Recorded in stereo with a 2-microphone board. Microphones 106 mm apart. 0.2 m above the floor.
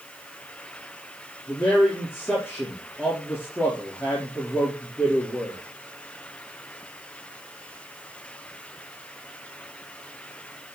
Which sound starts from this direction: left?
A man speaking, at 1.5 s.